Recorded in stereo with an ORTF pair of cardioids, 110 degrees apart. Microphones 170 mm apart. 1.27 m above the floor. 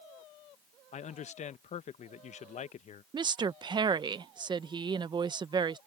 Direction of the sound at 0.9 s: 45° left.